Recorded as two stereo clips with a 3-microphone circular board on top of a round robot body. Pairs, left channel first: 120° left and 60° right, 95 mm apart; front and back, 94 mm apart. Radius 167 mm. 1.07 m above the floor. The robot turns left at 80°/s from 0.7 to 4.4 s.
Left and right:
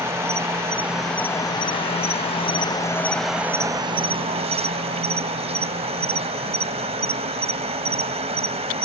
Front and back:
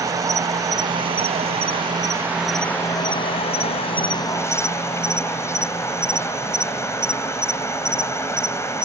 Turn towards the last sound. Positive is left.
turn(degrees=-60)